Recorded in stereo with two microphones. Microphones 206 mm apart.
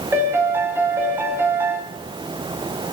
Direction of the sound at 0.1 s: 10° right (ahead or behind).